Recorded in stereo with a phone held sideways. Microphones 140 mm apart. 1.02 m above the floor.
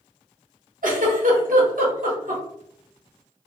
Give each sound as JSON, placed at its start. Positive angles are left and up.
{"t": 0.8, "sound": "a giggle", "side_deg": -70, "distance_m": 1.1}